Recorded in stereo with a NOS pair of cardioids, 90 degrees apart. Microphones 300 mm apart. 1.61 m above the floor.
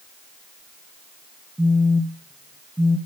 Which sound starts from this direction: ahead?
A phone buzzing, at 1.6 s.